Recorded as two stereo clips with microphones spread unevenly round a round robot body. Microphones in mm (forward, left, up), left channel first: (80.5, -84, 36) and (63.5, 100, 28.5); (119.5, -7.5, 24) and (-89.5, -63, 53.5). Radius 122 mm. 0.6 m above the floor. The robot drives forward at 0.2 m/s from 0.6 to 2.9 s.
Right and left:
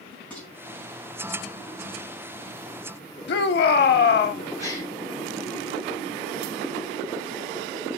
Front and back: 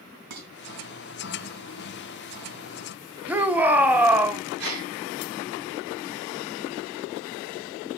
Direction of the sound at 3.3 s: 80° right.